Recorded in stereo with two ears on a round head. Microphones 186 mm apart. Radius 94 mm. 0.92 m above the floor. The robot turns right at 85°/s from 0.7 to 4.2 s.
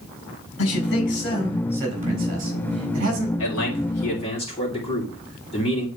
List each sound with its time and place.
0.6 s a man speaking: 105° left, 4.5 m; by 3.3 s 35° right, 4.5 m
3.4 s a man speaking: 80° left, 3 m; by 5.9 s 150° left, 3 m